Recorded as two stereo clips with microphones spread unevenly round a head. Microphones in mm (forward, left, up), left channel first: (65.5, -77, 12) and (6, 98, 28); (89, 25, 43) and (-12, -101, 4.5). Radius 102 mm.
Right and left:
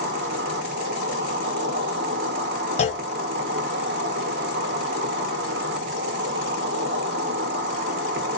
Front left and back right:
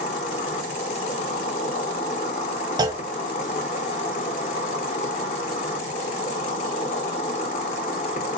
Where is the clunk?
60° right, 0.9 m.